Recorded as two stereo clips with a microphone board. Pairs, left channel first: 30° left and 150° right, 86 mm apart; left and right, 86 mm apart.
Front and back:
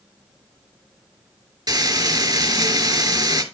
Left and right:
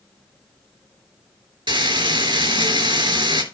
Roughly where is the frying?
Behind right.